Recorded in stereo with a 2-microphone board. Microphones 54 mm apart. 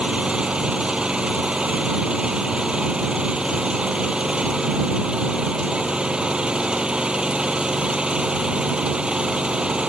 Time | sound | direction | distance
0.0 | an engine running | 15° right (ahead or behind) | ?